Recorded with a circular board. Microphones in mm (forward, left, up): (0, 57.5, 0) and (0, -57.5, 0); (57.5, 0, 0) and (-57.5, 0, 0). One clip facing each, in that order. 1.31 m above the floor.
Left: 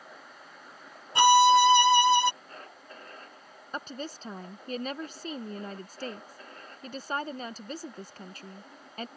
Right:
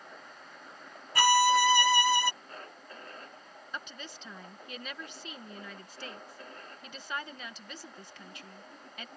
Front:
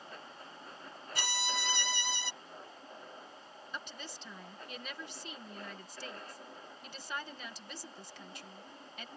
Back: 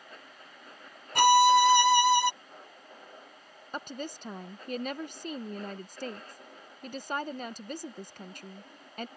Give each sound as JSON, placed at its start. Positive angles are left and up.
{"t": 1.1, "sound": "a violin", "azimuth_deg": 155}
{"t": 3.7, "sound": "a woman speaking", "azimuth_deg": 140}